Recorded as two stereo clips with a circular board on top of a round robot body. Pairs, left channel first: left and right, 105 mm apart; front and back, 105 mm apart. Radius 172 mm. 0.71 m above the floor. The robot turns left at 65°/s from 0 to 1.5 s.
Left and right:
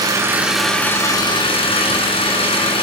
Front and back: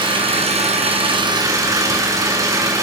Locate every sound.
0.0 s an engine running: 140° right, 4.5 m; by 2.8 s 120° left, 4.5 m